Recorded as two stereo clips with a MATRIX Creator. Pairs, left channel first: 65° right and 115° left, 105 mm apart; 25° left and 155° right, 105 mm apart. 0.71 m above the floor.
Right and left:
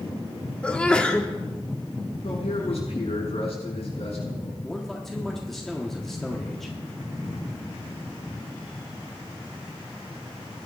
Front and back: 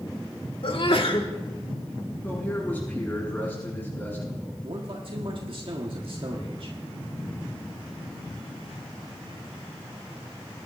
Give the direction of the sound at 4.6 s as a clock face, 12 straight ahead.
5 o'clock.